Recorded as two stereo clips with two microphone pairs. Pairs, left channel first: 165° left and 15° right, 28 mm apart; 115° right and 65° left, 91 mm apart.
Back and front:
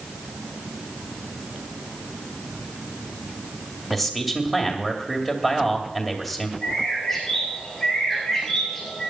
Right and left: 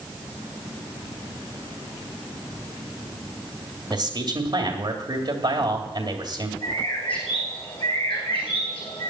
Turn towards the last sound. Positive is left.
turn(degrees=-110)